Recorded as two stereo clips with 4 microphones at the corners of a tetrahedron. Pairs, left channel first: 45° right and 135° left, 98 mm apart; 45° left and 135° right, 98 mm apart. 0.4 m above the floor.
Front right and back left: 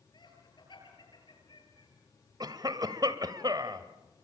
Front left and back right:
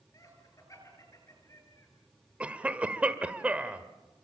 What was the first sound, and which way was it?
Laughter, 5° right.